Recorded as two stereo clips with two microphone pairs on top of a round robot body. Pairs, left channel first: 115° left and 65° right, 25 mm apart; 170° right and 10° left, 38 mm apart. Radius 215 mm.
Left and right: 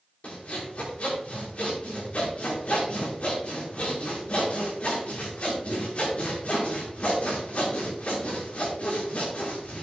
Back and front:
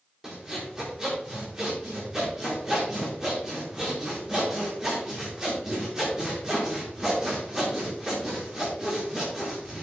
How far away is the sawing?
About 6 m.